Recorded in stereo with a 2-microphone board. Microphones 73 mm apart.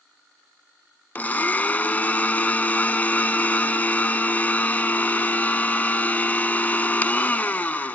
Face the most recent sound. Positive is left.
turn(degrees=25)  # may be behind; listen again after turning